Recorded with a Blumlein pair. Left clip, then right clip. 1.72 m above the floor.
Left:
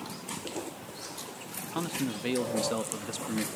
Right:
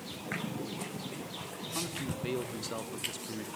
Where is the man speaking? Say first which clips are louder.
Left 5 dB; 20° left, 0.9 m.